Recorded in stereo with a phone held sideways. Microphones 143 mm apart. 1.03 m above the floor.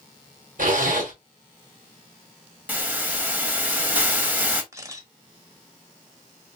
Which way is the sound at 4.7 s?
20° right (ahead or behind).